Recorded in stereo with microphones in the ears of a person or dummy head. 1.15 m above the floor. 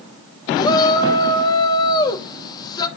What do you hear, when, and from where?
0.6 s a shout: 25° left (ahead or behind), 2 m